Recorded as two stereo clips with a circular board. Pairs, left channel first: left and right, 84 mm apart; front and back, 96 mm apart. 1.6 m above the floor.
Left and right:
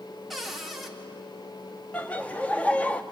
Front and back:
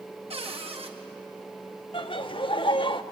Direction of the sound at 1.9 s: 15° left.